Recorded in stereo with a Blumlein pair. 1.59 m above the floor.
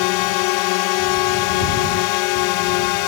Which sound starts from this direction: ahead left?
A drone, at 0.0 s.